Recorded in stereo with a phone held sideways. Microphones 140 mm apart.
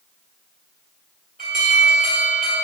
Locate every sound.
1.4 s an alarm: 70° right (ahead or behind), 2.5 m